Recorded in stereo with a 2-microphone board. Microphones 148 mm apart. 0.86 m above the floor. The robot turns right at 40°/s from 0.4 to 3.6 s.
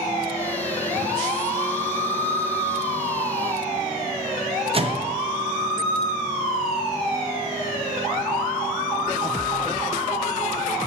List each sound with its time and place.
4.7 s a microwave: 40° right (ahead or behind), 0.6 m